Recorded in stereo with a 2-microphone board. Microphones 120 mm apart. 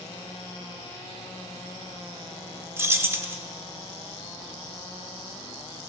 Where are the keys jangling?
20° right (ahead or behind), 0.6 m.